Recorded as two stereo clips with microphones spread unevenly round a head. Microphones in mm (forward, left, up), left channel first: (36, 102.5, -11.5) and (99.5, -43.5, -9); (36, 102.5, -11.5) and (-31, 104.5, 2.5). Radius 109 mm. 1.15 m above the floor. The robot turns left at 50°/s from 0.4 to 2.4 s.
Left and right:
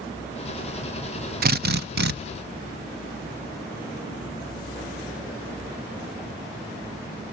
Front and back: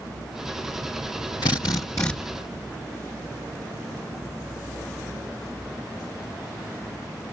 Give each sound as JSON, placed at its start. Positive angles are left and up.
{"t": 1.4, "sound": "a drill", "azimuth_deg": -50, "distance_m": 0.8}